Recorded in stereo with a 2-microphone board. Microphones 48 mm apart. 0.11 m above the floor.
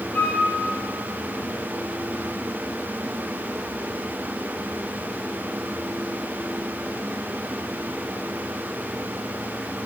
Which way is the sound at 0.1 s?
30° left (ahead or behind).